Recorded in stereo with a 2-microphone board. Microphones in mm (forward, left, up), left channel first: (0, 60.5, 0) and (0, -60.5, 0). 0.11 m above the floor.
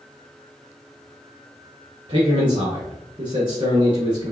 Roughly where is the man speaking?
Right.